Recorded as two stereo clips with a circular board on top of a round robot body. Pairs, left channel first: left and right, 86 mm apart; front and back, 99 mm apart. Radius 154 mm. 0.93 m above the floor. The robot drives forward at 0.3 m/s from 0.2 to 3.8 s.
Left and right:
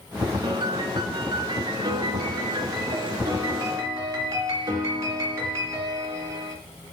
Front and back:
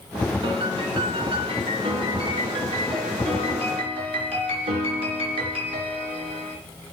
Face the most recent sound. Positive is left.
turn(degrees=-150)